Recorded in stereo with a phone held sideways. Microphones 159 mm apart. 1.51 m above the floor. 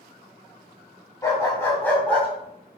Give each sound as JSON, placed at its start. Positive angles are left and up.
{"t": 1.2, "sound": "a dog barking", "side_deg": 20, "distance_m": 3.0}